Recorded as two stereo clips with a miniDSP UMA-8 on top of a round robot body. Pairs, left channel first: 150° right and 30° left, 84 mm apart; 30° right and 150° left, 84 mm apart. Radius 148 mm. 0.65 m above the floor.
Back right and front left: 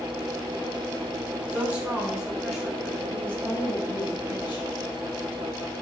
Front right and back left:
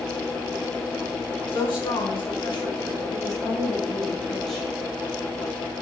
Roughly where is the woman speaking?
Ahead right.